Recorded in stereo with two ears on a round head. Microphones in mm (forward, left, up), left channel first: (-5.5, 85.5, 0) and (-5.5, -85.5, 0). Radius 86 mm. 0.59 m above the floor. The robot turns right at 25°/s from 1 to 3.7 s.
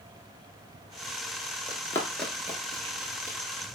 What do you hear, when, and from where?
1.7 s running footsteps: 25° left (ahead or behind), 0.6 m; by 3.4 s 50° right (ahead or behind), 1.0 m